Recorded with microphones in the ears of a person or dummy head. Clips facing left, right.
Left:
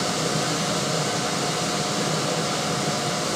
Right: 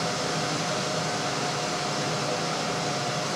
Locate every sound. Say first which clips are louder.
0.0 s a machine running: left 4 dB; 45° left (ahead or behind), 0.8 m